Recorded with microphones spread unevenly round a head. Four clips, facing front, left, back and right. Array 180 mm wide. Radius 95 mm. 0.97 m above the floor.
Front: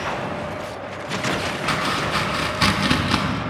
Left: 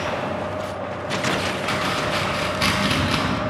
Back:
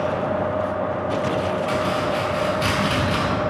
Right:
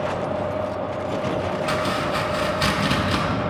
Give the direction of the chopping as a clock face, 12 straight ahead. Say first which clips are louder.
Even, back 2 dB; 12 o'clock.